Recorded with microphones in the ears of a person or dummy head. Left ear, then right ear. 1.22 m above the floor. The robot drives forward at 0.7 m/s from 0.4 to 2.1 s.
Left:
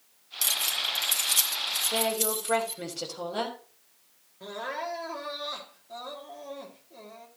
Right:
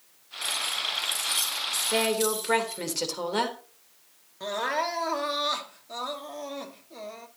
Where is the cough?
I don't hear a cough.